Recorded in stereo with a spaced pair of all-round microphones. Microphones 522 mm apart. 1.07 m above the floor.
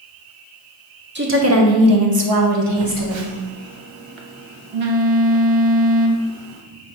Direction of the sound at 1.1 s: 20° right (ahead or behind).